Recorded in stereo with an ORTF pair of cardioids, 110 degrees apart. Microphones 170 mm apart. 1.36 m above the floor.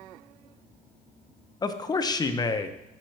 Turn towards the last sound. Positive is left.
turn(degrees=25)